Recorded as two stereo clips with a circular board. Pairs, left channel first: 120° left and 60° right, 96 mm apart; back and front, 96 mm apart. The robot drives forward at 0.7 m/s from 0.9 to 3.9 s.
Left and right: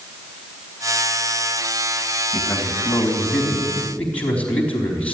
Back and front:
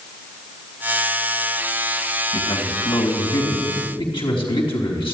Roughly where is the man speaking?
Behind.